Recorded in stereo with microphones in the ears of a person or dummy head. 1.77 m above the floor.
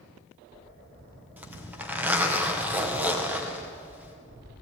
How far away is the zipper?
About 1.8 m.